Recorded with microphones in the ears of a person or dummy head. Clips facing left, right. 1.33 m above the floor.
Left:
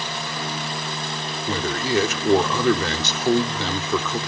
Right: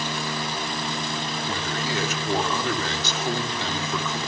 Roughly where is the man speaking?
Left.